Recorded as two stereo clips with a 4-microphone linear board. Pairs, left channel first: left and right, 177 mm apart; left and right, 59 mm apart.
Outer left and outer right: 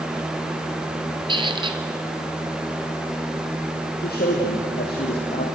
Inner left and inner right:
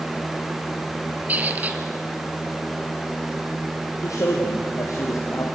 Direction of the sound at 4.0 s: 65° left (ahead or behind).